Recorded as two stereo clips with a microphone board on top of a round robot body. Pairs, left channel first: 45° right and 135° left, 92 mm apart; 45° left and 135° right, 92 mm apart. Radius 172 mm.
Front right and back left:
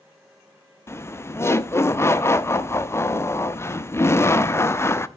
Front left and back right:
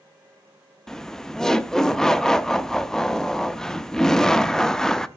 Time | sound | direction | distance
0.9 | laughter | 35° right | 0.9 m